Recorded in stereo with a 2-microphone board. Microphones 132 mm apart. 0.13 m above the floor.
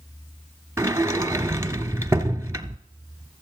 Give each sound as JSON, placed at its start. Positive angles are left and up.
{"t": 0.8, "sound": "a sliding door", "side_deg": -20, "distance_m": 0.8}